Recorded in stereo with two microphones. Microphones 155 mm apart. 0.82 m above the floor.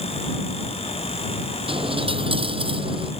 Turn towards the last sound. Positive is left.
turn(degrees=-35)  # may be behind; listen again after turning